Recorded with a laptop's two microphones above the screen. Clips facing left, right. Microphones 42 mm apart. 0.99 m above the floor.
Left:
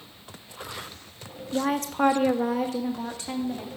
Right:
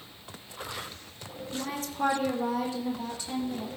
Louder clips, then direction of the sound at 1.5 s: Left 9 dB; 60° left (ahead or behind).